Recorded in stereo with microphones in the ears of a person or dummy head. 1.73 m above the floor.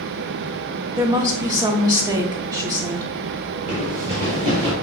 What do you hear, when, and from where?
1.0 s a woman speaking: 20° right (ahead or behind), 0.6 m
3.7 s running footsteps: 20° right (ahead or behind), 1.8 m; by 4.7 s 35° right (ahead or behind), 2.5 m